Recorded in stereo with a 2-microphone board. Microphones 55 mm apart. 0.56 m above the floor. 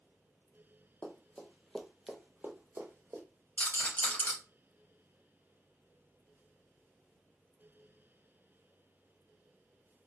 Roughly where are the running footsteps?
Left.